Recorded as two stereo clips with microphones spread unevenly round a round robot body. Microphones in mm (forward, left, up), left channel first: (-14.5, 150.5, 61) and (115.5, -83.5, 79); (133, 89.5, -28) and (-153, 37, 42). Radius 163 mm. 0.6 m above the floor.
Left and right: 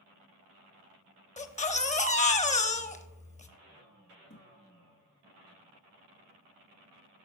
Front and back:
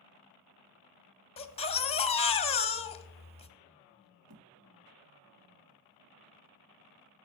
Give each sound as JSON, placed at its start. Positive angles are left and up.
{"t": 1.4, "sound": "a baby crying", "azimuth_deg": 65, "distance_m": 0.9}
{"t": 4.3, "sound": "a thud", "azimuth_deg": 175, "distance_m": 2.0}